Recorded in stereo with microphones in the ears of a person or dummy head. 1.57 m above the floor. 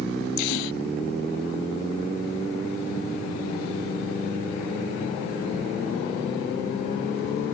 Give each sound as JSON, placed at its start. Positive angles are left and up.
{"t": 0.4, "sound": "a gasp", "side_deg": 75}